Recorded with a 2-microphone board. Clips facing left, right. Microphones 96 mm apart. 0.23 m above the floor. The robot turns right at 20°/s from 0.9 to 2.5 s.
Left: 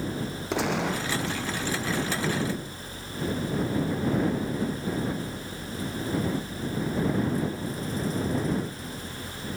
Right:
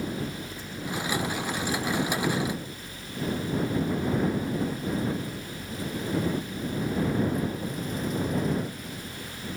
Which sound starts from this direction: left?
A gunshot, at 0.5 s.